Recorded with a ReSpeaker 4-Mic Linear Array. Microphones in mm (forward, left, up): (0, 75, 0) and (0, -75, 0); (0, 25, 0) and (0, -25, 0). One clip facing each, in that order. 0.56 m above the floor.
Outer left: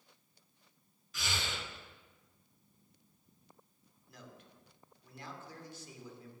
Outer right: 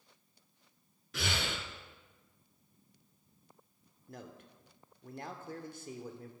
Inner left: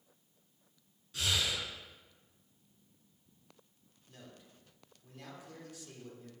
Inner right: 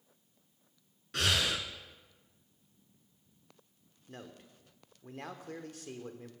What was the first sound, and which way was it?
Breathing, 65° right (ahead or behind).